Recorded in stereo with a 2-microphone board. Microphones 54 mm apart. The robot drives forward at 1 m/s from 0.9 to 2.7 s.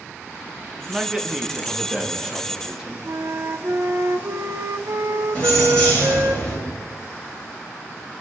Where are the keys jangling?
15° left (ahead or behind), 6 m.